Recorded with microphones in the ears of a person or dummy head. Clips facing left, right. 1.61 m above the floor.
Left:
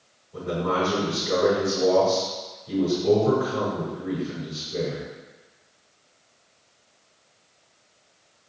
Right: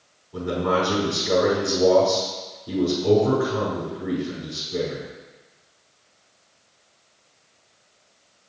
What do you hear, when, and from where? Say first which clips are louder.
0.3 s a man speaking: right 3 dB; 85° right, 5 m